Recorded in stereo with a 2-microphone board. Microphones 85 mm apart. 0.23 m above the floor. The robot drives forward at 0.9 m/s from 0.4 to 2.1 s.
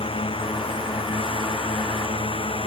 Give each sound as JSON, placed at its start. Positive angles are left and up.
{"t": 0.0, "sound": "a drone", "side_deg": 80}